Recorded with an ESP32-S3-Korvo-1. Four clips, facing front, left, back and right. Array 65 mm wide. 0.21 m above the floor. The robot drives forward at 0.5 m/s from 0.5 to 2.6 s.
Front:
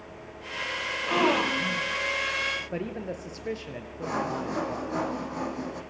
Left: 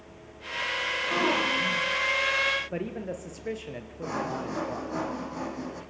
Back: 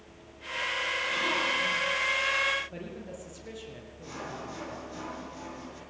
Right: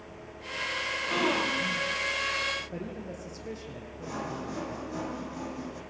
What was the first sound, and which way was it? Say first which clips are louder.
A gasp: left 2 dB, front 8 dB; 5° left.